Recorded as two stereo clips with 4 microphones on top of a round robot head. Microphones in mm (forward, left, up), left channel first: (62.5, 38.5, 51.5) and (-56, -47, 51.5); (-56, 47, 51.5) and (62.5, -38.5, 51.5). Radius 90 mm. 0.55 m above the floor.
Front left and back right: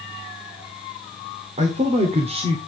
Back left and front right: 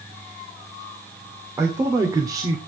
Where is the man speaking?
105° right, 2 m; by 2.6 s 95° right, 1.6 m.